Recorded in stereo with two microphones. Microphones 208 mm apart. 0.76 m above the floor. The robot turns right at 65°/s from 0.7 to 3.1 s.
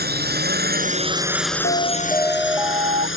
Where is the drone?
50° right; by 3.2 s 105° left.